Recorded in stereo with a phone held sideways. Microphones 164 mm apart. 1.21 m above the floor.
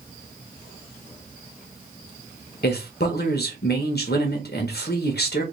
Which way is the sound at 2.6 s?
80° left.